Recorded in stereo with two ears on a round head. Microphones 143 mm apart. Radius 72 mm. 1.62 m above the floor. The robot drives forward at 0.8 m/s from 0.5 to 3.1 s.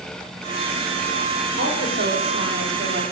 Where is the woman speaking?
55° right (ahead or behind), 3.5 m; by 3.1 s 75° right (ahead or behind), 3 m.